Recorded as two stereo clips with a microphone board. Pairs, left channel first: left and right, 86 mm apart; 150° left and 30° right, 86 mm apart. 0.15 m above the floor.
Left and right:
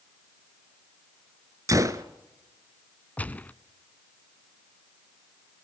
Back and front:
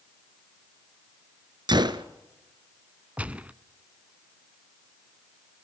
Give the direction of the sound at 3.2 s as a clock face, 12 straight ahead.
11 o'clock.